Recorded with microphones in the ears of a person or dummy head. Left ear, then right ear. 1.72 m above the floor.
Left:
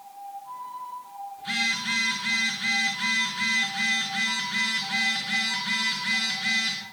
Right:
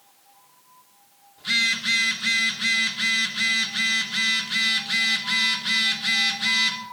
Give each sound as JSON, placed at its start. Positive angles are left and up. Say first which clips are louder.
{"t": 1.4, "sound": "a phone buzzing", "louder": "right 5 dB", "side_deg": -30, "distance_m": 2.5}